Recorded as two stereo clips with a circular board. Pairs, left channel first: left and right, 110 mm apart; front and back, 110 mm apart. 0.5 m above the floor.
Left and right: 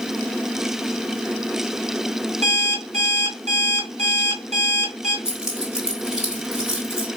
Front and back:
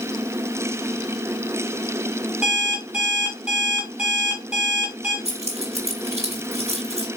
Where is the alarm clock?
100° right, 3 m.